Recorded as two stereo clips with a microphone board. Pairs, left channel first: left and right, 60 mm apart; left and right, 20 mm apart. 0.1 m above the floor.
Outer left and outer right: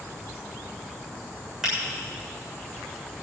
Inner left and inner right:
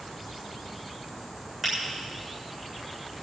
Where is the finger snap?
5° right (ahead or behind), 7 m.